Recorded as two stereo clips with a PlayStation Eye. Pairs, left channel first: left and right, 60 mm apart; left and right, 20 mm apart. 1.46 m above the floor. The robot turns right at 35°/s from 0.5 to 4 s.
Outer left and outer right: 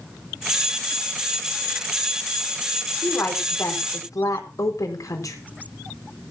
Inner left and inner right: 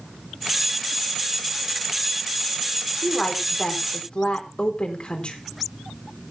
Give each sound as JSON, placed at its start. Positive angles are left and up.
{"t": 3.0, "sound": "a woman speaking", "azimuth_deg": 35, "distance_m": 4.0}